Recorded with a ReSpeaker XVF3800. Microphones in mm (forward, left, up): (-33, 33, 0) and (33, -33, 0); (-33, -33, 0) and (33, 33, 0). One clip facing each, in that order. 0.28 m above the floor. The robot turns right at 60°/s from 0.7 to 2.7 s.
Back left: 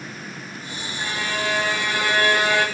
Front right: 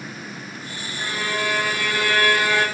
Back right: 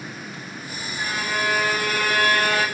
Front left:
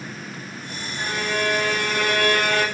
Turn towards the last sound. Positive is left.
turn(degrees=105)